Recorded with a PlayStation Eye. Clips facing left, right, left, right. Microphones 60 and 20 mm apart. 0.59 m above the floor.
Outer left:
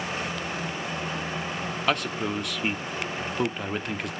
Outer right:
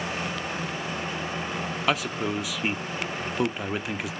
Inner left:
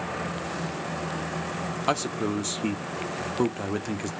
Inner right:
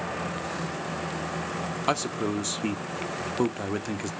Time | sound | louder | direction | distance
1.9 | a man speaking | even, inner left 1 dB | 5° right (ahead or behind) | 1.0 m